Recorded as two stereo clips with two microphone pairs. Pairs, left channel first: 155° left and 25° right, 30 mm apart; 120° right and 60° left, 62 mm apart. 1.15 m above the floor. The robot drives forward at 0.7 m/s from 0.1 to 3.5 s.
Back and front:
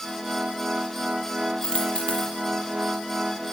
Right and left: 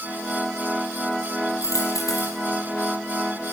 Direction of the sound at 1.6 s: 145° right.